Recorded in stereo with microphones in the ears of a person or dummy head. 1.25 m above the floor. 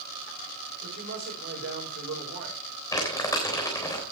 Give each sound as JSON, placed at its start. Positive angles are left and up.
{"t": 0.8, "sound": "a man speaking", "side_deg": -60, "distance_m": 5.5}
{"t": 2.9, "sound": "crumpling", "side_deg": 15, "distance_m": 3.5}